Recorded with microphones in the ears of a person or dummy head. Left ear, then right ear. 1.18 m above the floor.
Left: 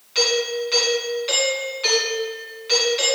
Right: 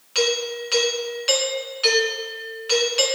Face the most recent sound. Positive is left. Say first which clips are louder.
# left 2 dB
turn(degrees=-30)  # may be behind; listen again after turning